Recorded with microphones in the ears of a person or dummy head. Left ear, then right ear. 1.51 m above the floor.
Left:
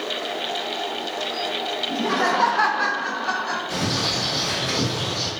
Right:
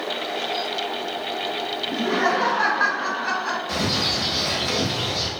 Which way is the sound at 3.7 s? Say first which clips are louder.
Right 2 dB; 45° right (ahead or behind).